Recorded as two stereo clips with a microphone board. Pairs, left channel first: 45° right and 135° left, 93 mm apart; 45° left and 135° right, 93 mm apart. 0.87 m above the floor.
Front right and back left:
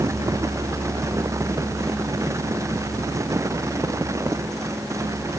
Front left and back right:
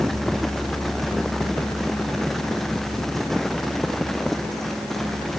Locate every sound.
Only background noise.